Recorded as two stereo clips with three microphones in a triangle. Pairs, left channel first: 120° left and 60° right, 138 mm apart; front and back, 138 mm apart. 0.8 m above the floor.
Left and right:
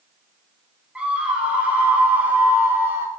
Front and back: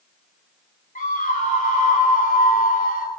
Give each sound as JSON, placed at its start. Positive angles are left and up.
{"t": 0.9, "sound": "a scream", "azimuth_deg": 20, "distance_m": 7.0}